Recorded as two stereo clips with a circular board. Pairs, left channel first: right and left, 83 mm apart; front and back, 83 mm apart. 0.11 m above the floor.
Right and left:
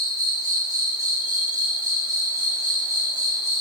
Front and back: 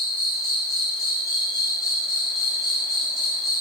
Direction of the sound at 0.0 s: 90° left.